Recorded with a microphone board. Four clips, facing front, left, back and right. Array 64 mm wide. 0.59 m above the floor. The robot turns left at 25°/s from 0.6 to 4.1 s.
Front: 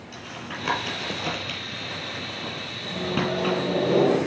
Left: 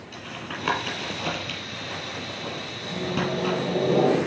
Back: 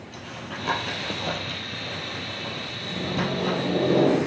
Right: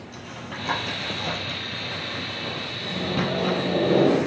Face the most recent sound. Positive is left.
turn(degrees=-80)